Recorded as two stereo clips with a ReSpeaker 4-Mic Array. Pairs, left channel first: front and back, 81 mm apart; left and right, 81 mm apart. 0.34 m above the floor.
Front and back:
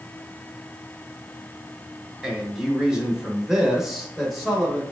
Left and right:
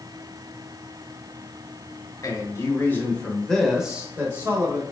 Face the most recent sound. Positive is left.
turn(degrees=-95)